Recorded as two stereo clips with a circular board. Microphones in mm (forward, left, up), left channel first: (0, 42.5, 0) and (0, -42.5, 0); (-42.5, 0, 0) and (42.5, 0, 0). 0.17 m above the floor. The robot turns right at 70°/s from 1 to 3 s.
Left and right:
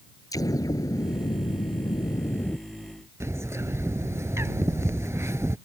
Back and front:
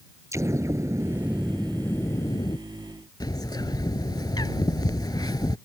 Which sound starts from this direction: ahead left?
An explosion, at 0.3 s.